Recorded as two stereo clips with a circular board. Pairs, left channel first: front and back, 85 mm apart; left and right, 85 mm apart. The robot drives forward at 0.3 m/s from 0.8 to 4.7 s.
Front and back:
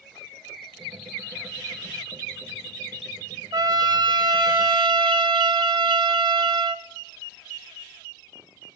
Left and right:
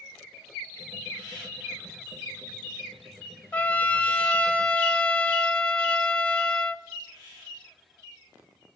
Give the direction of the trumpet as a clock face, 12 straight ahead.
7 o'clock.